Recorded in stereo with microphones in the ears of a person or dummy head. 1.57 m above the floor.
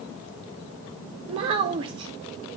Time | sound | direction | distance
1.3 | a child speaking | 30° right (ahead or behind) | 0.6 m